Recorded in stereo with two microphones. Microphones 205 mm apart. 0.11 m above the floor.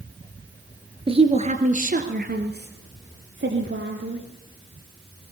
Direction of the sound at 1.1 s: 25° right (ahead or behind).